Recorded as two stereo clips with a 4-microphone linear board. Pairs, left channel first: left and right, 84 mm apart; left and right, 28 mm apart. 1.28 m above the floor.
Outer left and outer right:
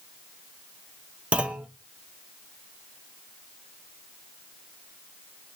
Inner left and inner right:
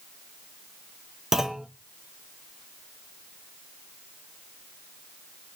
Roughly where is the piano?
I don't hear a piano.